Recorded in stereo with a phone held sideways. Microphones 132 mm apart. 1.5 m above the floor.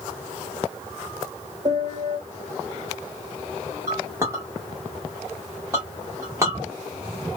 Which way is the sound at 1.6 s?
45° right (ahead or behind).